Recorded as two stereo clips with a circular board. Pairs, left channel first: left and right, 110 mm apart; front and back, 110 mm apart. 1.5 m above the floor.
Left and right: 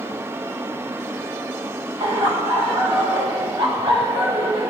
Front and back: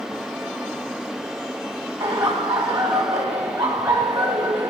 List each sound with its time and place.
2.0 s laughter: 130° right, 1.8 m